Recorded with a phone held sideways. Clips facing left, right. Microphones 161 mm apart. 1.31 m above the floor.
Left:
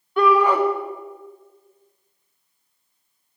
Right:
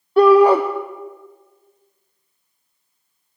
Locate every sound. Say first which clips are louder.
0.2 s a shout: right 7 dB; 35° right (ahead or behind), 0.6 m